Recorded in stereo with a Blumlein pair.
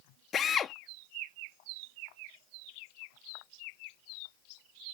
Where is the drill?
25° left.